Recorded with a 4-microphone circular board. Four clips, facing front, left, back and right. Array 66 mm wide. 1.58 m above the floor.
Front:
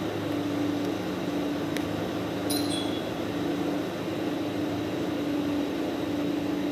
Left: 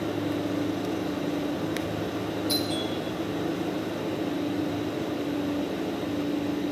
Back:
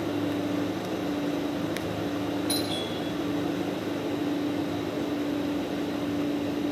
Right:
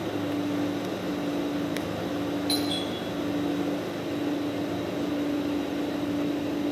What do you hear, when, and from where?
2.5 s a doorbell: 125° right, 7 m